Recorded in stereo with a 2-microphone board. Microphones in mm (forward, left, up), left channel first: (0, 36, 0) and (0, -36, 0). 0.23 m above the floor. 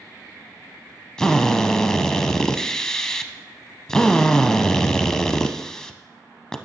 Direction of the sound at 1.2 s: 10° left (ahead or behind).